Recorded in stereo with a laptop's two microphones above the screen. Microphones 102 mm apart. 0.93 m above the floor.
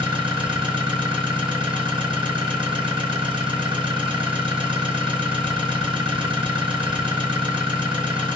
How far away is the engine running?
About 1.6 m.